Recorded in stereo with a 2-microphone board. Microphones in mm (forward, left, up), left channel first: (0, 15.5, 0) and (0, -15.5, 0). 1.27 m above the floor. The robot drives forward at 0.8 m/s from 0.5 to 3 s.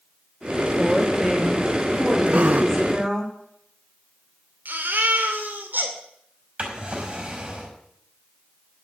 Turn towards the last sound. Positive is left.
turn(degrees=-35)  # may be behind; listen again after turning